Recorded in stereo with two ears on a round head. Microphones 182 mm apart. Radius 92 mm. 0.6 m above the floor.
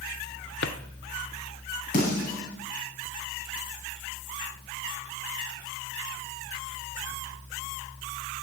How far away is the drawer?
About 1.0 m.